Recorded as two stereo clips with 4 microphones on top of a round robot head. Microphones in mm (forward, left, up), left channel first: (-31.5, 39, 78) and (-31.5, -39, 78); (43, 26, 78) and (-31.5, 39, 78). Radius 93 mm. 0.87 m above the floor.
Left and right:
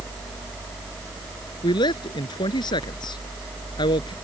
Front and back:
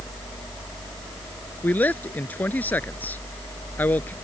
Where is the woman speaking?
60° left.